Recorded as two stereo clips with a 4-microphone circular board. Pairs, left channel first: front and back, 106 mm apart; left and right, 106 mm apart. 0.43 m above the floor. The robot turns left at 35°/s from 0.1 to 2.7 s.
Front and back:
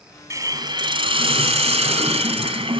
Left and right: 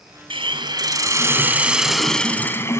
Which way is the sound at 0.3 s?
120° right.